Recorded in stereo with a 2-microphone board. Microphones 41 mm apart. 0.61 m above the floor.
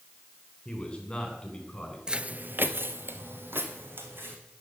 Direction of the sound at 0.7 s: 15° left (ahead or behind).